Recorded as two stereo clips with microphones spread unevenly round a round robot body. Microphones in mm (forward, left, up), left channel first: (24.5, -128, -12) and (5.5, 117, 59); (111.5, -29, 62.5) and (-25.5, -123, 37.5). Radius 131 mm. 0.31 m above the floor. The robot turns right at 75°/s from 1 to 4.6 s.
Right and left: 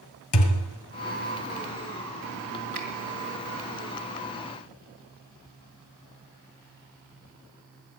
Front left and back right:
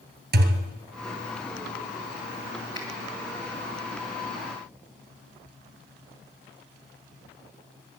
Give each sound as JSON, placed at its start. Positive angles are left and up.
{"t": 0.3, "sound": "a thud", "azimuth_deg": -120, "distance_m": 2.0}
{"t": 2.8, "sound": "a finger snap", "azimuth_deg": 115, "distance_m": 3.0}